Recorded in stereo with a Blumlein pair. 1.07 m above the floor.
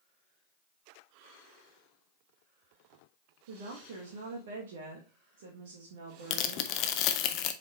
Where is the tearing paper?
40° left, 0.8 m.